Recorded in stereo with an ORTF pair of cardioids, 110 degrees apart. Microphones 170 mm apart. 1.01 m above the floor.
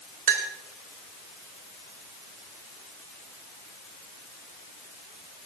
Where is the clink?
60° right, 2.5 m.